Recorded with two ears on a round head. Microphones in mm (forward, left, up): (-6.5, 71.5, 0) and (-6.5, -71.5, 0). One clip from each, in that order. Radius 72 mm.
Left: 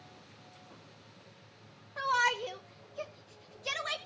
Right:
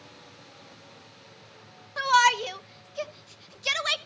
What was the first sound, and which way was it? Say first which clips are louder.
A shout: right 8 dB; 75° right (ahead or behind).